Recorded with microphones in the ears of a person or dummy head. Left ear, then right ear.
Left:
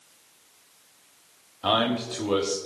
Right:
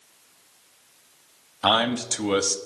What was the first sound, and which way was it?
A man speaking, 55° right (ahead or behind).